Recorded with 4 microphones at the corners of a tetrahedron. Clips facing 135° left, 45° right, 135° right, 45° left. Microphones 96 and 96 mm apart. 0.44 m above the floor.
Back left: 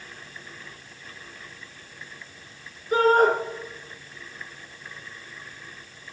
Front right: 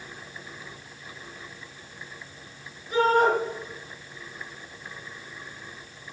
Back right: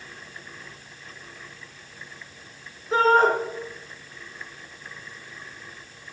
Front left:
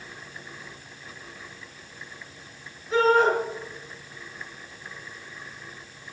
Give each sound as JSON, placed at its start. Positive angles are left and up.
{"t": 2.9, "sound": "a shout", "azimuth_deg": 175, "distance_m": 5.0}